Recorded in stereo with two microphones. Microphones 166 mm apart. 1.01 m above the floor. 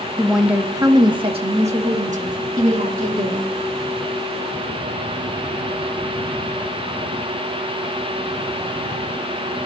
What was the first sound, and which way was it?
A woman speaking, 5° left (ahead or behind).